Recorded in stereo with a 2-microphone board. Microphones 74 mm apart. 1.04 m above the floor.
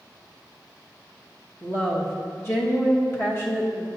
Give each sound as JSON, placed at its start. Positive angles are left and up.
{"t": 1.6, "sound": "a woman speaking", "side_deg": 30, "distance_m": 1.0}